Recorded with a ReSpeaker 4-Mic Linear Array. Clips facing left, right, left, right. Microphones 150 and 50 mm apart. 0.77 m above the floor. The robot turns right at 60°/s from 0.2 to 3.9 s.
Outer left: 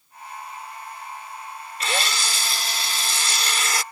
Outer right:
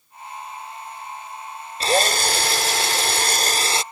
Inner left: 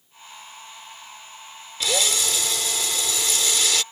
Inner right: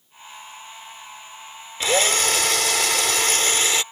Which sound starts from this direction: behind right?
A drill, at 1.8 s.